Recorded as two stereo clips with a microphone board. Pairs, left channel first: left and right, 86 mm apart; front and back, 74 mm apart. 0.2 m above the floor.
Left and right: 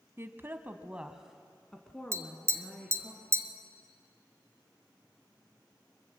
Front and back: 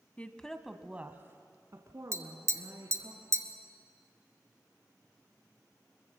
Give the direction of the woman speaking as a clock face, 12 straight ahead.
2 o'clock.